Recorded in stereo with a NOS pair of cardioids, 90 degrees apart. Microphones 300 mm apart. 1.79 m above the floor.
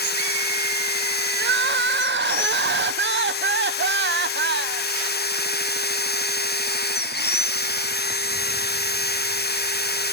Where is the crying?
40° right, 0.6 m.